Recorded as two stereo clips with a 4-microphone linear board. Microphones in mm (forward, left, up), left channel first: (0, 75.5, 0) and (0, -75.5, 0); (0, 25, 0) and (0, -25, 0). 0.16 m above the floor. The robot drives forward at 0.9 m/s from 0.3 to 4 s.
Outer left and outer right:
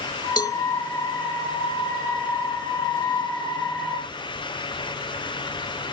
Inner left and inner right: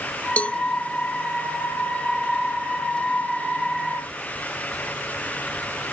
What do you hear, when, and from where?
0.4 s a cowbell: 25° left (ahead or behind); by 0.6 s 20° left (ahead or behind)